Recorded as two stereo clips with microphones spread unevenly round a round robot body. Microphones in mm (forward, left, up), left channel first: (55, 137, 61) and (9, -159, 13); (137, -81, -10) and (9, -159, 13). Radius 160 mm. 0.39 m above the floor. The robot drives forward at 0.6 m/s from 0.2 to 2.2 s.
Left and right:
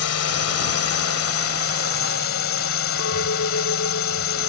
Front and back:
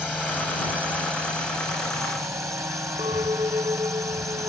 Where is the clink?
135° left.